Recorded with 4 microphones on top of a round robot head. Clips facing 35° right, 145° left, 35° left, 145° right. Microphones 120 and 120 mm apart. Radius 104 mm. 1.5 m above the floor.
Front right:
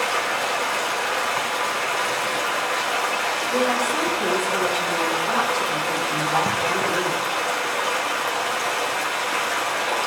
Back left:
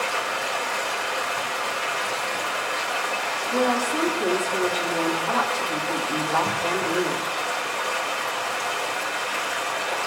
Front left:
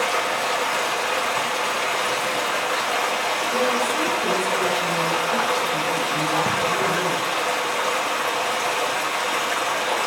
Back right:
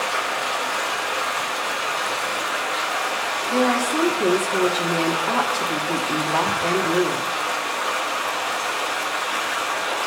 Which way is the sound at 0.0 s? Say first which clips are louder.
Front right 3 dB, front left 2 dB; 5° right.